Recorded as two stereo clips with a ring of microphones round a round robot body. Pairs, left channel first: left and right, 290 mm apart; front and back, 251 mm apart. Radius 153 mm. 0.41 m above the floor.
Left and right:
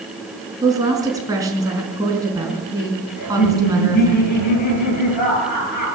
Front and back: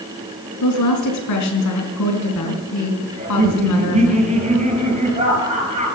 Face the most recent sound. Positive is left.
turn(degrees=120)